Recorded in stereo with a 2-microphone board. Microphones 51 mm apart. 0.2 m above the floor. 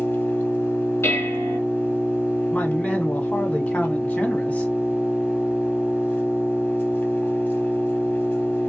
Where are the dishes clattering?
60° left (ahead or behind), 1.5 m.